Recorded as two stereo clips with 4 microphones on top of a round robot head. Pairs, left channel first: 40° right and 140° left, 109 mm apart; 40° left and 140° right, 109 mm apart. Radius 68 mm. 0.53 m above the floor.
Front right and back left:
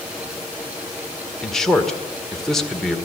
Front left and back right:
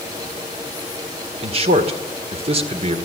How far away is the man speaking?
About 1.8 m.